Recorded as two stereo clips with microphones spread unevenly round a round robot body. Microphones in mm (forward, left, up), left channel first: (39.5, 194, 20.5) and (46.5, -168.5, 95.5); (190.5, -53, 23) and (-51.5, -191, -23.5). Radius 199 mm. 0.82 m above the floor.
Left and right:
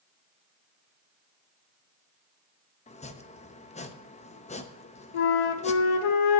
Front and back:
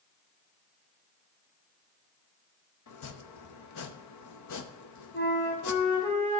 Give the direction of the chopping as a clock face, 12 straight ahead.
11 o'clock.